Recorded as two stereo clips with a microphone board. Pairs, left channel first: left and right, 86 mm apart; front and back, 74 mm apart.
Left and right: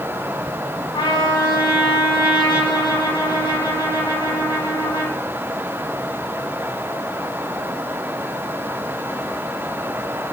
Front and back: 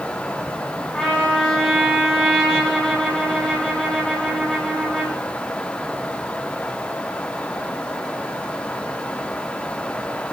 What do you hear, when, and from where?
0.9 s a trumpet: 80° left, 5 m